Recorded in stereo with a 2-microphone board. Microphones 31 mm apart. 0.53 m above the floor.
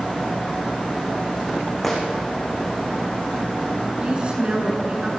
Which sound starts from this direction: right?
A woman speaking, at 4.0 s.